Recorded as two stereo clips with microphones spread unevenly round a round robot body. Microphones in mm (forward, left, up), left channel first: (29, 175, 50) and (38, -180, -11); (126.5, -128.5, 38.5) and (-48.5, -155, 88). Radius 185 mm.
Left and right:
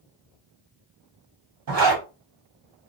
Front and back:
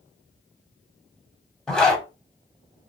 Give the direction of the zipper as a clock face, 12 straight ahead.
2 o'clock.